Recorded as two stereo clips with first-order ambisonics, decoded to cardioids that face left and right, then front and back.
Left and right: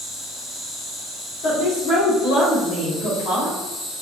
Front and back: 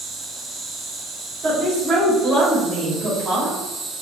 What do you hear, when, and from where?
0.0 s an insect: 130° left, 0.7 m
1.4 s a woman speaking: 120° left, 1.6 m